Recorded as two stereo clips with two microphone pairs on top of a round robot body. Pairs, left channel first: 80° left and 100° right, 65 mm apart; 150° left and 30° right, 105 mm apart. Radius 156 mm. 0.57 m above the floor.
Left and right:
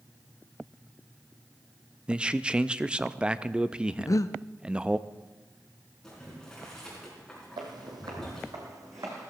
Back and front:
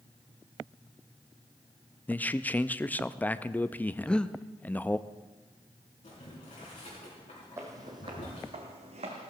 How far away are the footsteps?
About 1.2 m.